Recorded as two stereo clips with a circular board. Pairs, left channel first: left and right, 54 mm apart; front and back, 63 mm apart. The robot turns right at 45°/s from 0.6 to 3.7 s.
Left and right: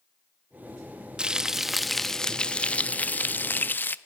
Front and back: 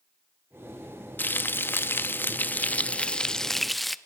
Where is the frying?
30° right, 0.6 m; by 4.0 s 85° left, 0.6 m.